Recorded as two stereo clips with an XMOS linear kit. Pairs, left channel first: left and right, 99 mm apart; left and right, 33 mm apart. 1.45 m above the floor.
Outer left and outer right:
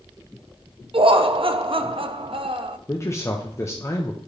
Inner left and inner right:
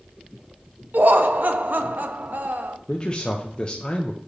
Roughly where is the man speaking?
Left.